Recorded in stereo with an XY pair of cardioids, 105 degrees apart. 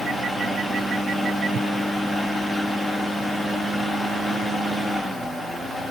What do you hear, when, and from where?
0.0 s a fan: 10° right, 3 m